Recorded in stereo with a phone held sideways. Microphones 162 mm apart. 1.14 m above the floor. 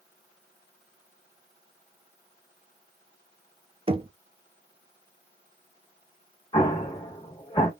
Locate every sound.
3.9 s knocking: 35° right (ahead or behind), 0.5 m
6.5 s an explosion: 25° left (ahead or behind), 1.2 m